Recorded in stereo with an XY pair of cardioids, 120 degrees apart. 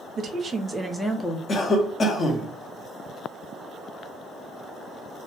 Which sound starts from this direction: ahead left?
A cough, at 1.5 s.